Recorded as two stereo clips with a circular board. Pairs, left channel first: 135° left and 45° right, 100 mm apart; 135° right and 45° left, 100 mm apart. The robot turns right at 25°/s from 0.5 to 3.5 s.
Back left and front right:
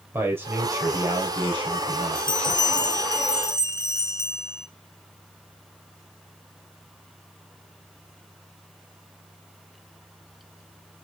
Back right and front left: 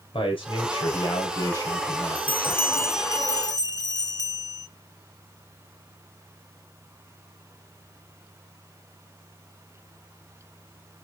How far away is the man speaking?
About 3.5 m.